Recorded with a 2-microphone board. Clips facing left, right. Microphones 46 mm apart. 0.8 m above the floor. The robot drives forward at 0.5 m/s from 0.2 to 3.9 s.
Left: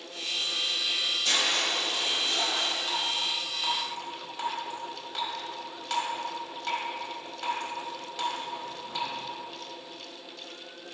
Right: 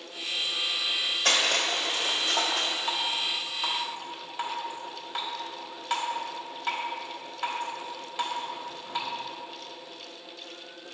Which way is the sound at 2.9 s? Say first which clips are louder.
Right 1 dB; 25° right (ahead or behind).